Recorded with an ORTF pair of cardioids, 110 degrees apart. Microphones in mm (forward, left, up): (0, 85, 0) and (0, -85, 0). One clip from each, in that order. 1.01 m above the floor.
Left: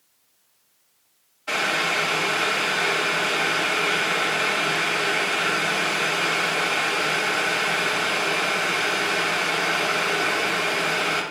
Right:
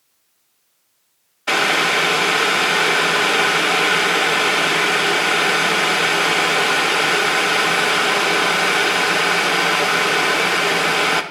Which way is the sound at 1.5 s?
45° right.